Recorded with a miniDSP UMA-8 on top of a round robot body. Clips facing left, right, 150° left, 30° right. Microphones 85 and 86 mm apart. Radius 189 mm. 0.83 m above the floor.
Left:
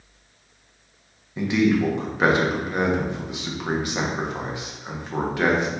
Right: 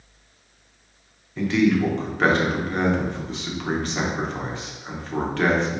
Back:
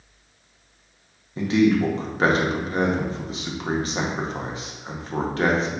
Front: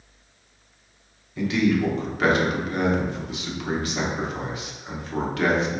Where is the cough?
No cough in this recording.